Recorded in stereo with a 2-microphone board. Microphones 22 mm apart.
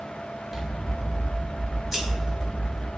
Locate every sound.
0.5 s scissors: 20° right (ahead or behind), 1.7 m